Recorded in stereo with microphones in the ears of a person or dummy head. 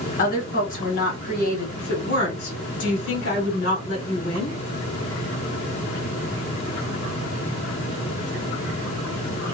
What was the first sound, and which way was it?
A woman speaking, 40° left (ahead or behind).